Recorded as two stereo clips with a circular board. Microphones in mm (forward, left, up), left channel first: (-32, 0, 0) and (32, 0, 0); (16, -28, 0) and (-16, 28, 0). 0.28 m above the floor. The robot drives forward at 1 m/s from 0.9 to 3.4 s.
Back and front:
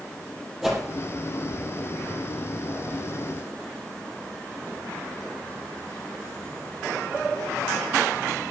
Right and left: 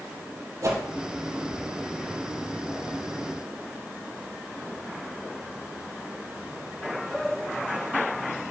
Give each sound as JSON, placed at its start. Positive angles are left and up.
{"t": 0.6, "sound": "a whoosh", "azimuth_deg": 85, "distance_m": 4.5}